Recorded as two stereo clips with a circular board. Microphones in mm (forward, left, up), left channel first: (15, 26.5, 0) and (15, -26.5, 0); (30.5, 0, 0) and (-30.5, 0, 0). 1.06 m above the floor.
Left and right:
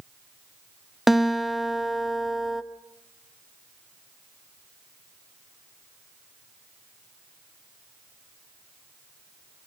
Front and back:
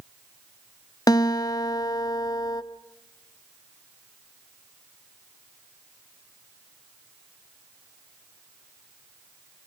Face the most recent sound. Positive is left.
turn(degrees=-5)